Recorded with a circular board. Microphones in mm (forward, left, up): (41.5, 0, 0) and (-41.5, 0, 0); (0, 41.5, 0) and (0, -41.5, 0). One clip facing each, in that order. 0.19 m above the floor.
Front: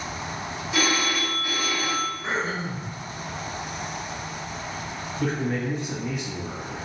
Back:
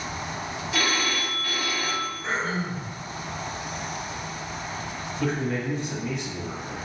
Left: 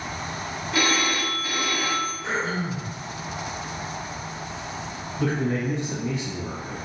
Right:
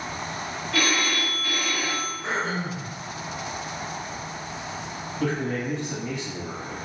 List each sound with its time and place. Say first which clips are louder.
0.7 s a phone ringing: front 2 dB, left 1 dB; 50° left, 0.8 m
2.2 s throat clearing: even, left 1 dB; 75° right, 1.2 m
5.2 s a man speaking: front 1 dB, left 2 dB; 80° left, 1.5 m